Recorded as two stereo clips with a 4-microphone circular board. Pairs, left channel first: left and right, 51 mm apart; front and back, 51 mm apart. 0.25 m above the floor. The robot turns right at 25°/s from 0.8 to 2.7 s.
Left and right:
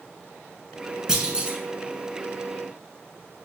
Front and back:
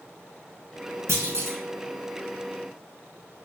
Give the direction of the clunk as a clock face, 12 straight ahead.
6 o'clock.